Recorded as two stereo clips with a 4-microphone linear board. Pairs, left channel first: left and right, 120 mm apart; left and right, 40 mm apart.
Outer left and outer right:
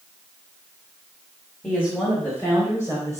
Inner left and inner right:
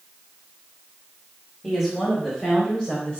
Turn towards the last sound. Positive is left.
turn(degrees=30)  # may be behind; listen again after turning